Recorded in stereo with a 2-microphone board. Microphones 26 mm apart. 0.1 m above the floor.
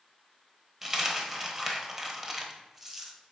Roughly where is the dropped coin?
Centre.